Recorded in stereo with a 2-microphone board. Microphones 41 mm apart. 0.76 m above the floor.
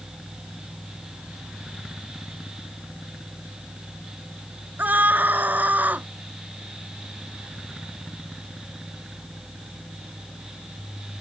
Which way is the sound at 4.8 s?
45° right (ahead or behind).